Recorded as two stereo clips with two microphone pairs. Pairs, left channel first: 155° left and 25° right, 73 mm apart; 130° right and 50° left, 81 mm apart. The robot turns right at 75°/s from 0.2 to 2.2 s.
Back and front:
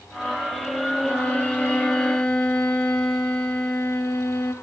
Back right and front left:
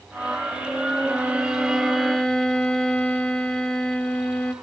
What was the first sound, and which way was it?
A violin, 100° left.